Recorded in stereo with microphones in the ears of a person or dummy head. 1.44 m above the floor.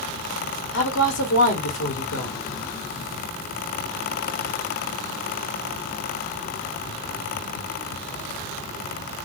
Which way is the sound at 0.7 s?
75° left (ahead or behind).